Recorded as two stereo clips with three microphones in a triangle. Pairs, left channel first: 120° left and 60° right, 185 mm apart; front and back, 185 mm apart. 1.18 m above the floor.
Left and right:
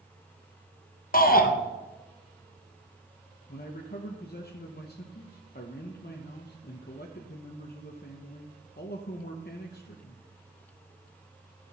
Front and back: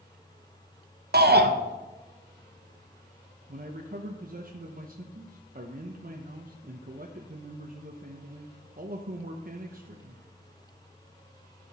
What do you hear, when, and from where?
1.1 s a shout: 155° left, 0.7 m
3.5 s a man speaking: 145° left, 0.7 m